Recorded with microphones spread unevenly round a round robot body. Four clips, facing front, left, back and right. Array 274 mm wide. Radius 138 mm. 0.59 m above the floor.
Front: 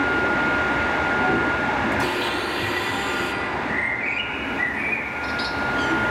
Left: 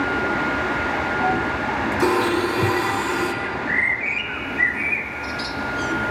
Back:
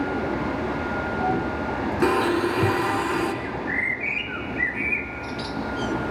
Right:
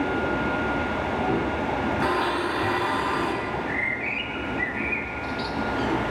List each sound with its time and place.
2.0 s a blender: 130° left, 1.8 m
3.4 s a bird: 120° left, 1.2 m